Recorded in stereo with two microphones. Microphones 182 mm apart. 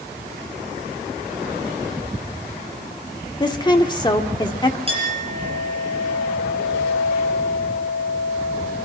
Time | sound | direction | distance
3.4 | a woman speaking | 25° left (ahead or behind) | 1.4 m
4.9 | a clink | 30° right (ahead or behind) | 6 m